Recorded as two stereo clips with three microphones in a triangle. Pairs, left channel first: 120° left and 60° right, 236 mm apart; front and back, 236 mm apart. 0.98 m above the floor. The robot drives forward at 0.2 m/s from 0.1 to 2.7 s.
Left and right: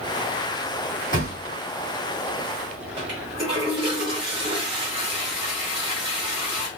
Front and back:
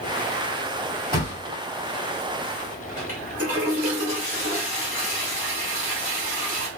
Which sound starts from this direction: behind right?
A toilet flushing, at 3.0 s.